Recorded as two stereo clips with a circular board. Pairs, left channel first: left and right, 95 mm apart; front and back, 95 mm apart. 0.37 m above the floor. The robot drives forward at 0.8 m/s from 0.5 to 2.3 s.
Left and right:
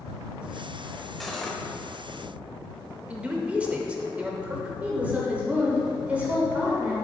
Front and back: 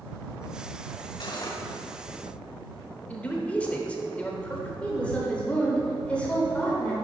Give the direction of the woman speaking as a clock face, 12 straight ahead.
2 o'clock.